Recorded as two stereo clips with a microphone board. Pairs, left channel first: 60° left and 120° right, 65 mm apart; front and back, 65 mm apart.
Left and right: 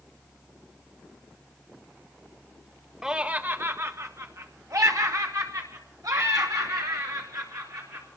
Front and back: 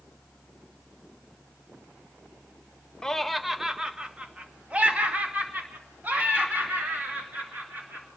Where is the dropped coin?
No dropped coin in this recording.